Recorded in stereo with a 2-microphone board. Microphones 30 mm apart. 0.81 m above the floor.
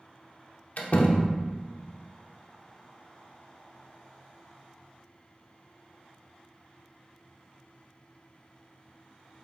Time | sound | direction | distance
0.8 | a door slam | 55° left (ahead or behind) | 1.1 m